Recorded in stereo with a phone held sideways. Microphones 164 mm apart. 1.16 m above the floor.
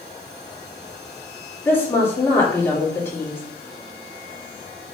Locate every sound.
1.6 s a woman speaking: 15° left (ahead or behind), 4 m